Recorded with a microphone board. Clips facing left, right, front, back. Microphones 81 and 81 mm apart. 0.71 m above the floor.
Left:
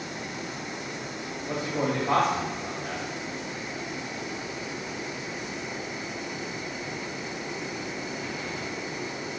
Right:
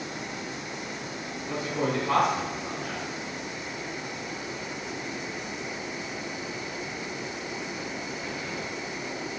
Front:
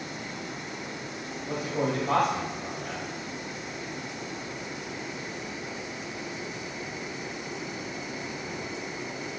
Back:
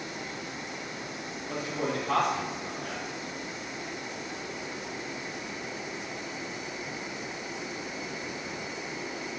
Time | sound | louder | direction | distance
1.5 | a man speaking | even, front 3 dB | 50° left | 3 m